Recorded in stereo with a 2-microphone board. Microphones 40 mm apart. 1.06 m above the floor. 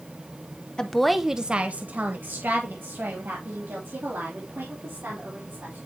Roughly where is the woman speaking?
Centre.